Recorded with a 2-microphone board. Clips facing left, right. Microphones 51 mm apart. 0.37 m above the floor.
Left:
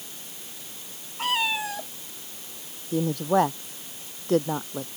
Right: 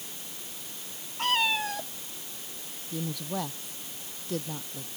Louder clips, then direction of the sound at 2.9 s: Left 11 dB; 50° left (ahead or behind).